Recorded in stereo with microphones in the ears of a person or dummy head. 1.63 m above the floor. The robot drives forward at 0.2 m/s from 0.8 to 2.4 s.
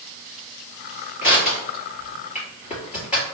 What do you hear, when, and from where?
1.2 s crushing: 40° left (ahead or behind), 1.8 m